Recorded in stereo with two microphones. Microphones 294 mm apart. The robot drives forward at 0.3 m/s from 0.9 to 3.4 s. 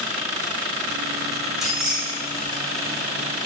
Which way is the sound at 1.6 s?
Centre (ahead or behind).